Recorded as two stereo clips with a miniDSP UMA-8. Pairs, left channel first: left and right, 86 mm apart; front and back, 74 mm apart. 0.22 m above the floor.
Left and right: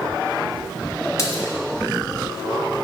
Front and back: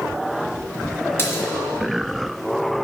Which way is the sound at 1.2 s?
50° left.